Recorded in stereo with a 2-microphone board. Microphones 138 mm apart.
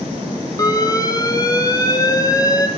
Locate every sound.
0.6 s an alarm: 25° left (ahead or behind), 3 m